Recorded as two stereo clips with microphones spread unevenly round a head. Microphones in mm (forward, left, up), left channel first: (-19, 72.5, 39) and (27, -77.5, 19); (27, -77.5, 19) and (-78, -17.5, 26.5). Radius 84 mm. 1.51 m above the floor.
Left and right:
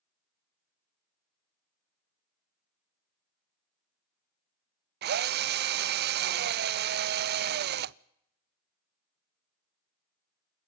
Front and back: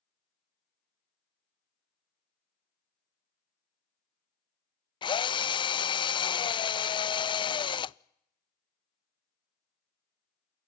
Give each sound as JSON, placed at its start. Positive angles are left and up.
{"t": 5.0, "sound": "a drill", "azimuth_deg": -80, "distance_m": 0.5}